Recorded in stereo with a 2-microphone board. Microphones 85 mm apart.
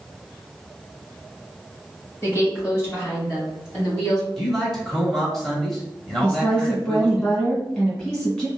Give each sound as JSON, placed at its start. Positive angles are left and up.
{"t": 2.2, "sound": "a woman speaking", "side_deg": 30, "distance_m": 1.8}
{"t": 4.4, "sound": "a man speaking", "side_deg": 5, "distance_m": 1.0}
{"t": 6.2, "sound": "a woman speaking", "side_deg": 20, "distance_m": 1.8}